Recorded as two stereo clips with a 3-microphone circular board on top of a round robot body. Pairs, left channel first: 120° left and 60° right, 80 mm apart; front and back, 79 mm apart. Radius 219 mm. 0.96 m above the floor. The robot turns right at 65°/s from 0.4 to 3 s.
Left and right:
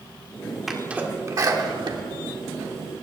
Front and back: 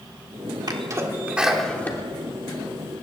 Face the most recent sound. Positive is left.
turn(degrees=5)